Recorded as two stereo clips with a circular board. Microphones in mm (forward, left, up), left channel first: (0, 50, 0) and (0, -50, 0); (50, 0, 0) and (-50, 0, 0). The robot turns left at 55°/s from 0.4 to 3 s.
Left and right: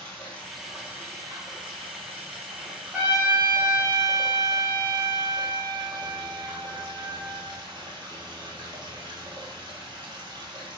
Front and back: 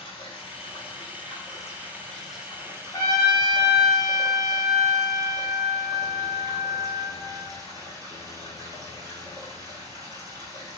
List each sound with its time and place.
0.0 s running water: 10° left, 1.4 m; by 10.8 s 130° right, 1.4 m
2.9 s a trumpet: 20° right, 1.1 m; by 7.5 s 25° right, 1.1 m